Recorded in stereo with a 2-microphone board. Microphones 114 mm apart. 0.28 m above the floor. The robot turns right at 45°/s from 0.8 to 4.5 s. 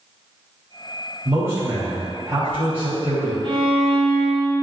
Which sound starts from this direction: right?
A violin, at 3.4 s.